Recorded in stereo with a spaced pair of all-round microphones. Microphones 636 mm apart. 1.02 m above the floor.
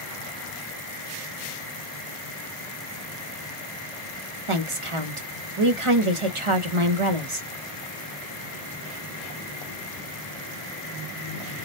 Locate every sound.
4.5 s a woman speaking: 50° right (ahead or behind), 1.0 m